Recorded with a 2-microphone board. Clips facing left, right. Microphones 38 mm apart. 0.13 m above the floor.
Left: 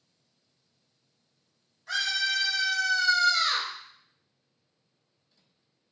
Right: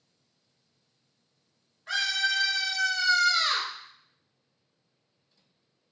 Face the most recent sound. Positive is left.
turn(degrees=-30)  # may be behind; listen again after turning